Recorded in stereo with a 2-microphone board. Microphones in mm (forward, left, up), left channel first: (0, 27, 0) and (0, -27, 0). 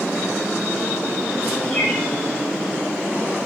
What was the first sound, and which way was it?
A bird, 25° left (ahead or behind).